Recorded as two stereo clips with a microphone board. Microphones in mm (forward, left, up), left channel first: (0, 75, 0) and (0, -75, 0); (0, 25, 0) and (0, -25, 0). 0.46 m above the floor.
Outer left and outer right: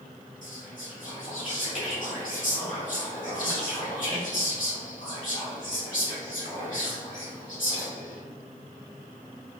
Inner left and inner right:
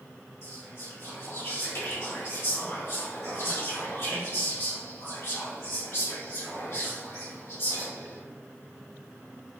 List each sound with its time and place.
0.4 s whispering: 60° left (ahead or behind), 1.8 m